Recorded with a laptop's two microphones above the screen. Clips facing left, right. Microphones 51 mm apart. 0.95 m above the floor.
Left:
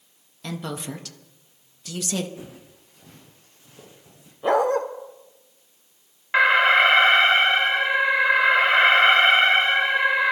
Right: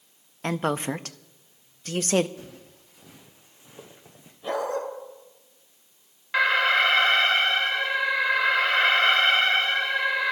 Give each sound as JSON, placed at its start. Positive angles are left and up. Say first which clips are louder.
{"t": 0.4, "sound": "a woman speaking", "louder": "right 6 dB", "side_deg": -40, "distance_m": 0.7}
{"t": 2.4, "sound": "footsteps", "louder": "left 3 dB", "side_deg": 15, "distance_m": 3.0}
{"t": 4.4, "sound": "a dog barking", "louder": "left 8 dB", "side_deg": 60, "distance_m": 1.2}
{"t": 6.3, "sound": "an alarm", "louder": "left 5 dB", "side_deg": 25, "distance_m": 0.8}